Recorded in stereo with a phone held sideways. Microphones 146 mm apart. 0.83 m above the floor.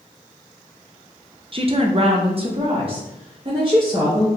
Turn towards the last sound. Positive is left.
turn(degrees=-35)  # may be behind; listen again after turning